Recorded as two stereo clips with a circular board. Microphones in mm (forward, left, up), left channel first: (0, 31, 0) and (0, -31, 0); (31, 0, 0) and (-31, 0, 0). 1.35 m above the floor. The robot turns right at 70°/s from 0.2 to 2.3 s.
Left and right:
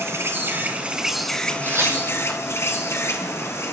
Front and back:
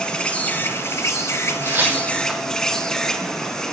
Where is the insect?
70° right, 1.7 m; by 3.7 s 75° left, 1.7 m.